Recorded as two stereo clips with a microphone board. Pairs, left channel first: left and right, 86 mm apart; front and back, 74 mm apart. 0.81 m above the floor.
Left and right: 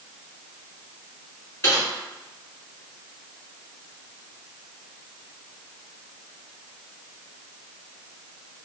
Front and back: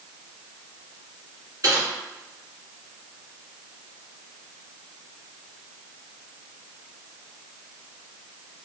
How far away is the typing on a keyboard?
About 1.4 m.